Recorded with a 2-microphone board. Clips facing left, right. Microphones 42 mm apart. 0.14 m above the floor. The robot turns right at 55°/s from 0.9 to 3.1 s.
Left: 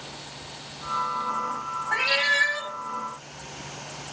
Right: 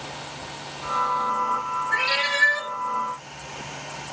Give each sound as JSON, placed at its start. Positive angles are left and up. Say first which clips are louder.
{"t": 1.9, "sound": "a cat meowing", "louder": "left 2 dB", "azimuth_deg": 165, "distance_m": 3.0}